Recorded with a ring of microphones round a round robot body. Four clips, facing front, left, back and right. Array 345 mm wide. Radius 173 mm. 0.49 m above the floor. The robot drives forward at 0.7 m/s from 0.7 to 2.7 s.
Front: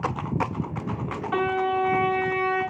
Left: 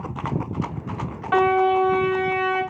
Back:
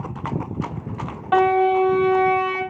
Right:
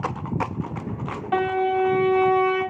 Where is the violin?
160° left, 2.0 m; by 2.6 s 165° left, 3 m.